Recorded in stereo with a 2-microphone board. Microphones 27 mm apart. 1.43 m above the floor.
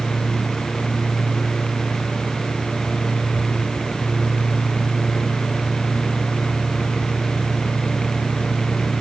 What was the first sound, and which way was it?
Only background noise.